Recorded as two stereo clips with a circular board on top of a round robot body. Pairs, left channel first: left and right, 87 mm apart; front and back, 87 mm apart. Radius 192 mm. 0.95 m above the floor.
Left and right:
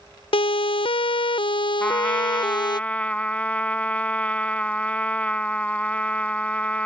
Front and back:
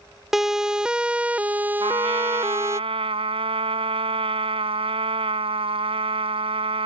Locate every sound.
0.3 s a siren: 95° left; by 2.8 s 120° left
1.8 s a trumpet: 165° left